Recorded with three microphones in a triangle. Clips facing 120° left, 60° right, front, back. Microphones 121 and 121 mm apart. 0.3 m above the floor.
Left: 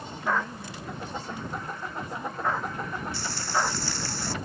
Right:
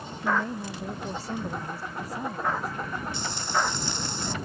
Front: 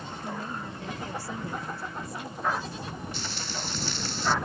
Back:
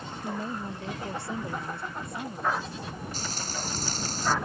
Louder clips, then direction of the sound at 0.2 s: Right 2 dB, back 3 dB; 115° right.